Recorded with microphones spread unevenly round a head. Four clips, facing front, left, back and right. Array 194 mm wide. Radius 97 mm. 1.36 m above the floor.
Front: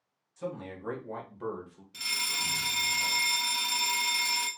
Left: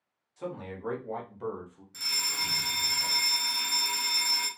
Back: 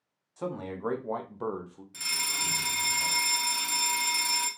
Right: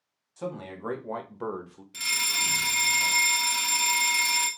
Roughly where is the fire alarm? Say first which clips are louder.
Right 5 dB, even; behind right.